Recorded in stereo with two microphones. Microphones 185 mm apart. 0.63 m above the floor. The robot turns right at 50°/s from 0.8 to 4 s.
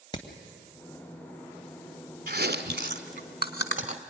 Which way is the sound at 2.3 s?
55° right (ahead or behind).